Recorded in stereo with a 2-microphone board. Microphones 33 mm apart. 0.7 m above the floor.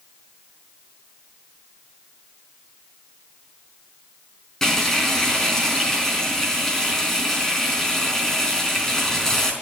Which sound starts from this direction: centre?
Frying, at 4.6 s.